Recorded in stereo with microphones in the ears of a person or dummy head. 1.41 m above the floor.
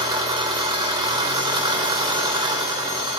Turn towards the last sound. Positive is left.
turn(degrees=-25)  # may be behind; listen again after turning